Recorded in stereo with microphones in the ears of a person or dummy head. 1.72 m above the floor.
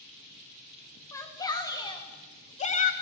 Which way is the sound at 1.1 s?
15° left (ahead or behind).